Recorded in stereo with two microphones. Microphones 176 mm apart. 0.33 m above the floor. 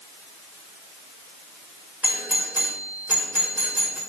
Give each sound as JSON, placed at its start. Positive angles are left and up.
{"t": 2.0, "sound": "a doorbell", "side_deg": -10, "distance_m": 1.4}